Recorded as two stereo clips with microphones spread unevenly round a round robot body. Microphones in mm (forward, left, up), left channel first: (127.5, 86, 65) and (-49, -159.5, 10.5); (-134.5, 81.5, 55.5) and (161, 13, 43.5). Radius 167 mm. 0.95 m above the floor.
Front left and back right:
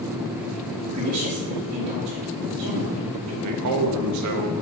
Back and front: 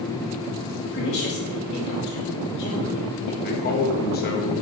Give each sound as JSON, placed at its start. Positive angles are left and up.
{"t": 0.9, "sound": "a woman speaking", "azimuth_deg": -160, "distance_m": 2.5}
{"t": 3.4, "sound": "a man speaking", "azimuth_deg": -135, "distance_m": 1.1}